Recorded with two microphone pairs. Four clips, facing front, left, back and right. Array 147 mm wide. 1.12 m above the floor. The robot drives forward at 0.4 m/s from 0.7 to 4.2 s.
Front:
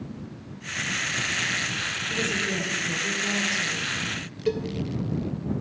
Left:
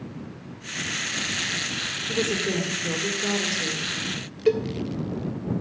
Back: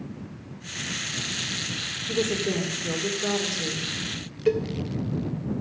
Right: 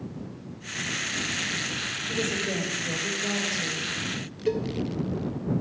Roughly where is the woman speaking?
Behind left.